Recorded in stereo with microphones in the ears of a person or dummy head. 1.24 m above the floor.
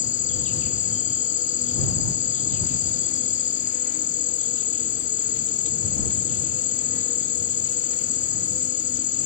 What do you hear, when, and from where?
0.0 s an insect: 35° left (ahead or behind)